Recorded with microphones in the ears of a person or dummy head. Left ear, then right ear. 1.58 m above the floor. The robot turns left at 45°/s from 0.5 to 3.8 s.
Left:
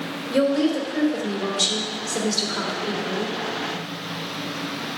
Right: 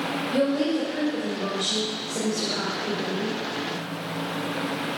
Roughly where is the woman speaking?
Behind left.